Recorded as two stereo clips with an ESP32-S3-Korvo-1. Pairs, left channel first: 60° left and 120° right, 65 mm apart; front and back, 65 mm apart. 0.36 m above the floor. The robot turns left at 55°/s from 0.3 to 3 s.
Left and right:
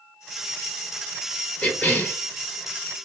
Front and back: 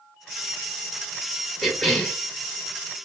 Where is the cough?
90° left, 0.8 m; by 2.2 s 60° left, 0.8 m.